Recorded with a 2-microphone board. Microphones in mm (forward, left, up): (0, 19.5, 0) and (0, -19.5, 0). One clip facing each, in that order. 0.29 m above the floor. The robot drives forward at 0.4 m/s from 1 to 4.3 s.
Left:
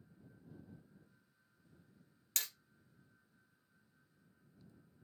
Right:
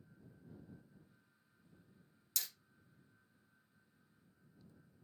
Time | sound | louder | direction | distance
2.4 | hammering | left 3 dB | 55° left (ahead or behind) | 0.6 m